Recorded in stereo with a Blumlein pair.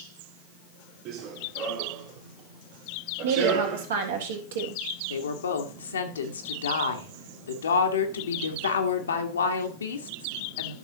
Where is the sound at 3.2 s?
60° right, 2.5 m.